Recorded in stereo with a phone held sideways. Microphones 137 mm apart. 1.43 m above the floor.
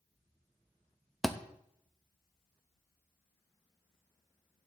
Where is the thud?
Centre (ahead or behind), 0.7 m.